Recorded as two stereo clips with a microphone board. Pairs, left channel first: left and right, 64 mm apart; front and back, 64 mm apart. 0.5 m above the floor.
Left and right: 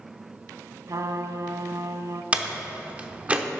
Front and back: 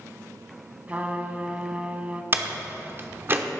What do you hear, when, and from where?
0.9 s a trumpet: 115° right, 0.8 m
2.3 s a door slam: 150° right, 0.9 m